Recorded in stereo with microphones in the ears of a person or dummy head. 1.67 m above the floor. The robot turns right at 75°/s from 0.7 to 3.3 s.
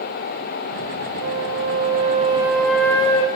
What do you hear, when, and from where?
1.2 s a flute: 110° right, 3 m; by 3.3 s 45° left, 3 m